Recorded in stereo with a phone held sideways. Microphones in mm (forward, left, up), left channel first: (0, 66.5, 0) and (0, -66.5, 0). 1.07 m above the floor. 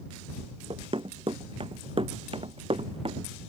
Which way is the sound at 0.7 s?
45° right (ahead or behind).